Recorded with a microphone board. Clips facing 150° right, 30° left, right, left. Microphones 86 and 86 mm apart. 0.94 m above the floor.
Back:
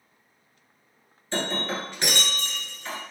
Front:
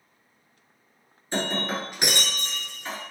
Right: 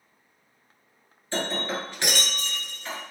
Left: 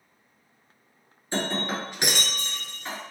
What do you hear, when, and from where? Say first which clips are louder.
1.3 s breaking glass: front 1 dB, even; 70° left, 0.9 m